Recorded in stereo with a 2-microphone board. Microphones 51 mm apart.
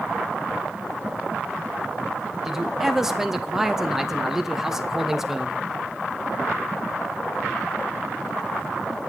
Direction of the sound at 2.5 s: 10° right (ahead or behind).